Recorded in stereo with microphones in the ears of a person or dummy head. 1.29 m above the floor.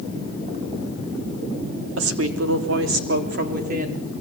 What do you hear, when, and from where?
2.0 s a woman speaking: 85° right, 3 m; by 4.0 s 45° right (ahead or behind), 3.5 m